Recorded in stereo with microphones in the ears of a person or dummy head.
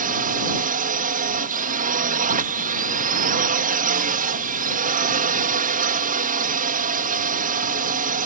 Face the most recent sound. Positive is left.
turn(degrees=-50)  # may be behind; listen again after turning